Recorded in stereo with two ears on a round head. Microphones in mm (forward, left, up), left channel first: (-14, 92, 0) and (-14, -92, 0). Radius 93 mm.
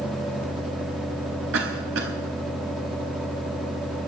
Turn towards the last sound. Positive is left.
turn(degrees=-80)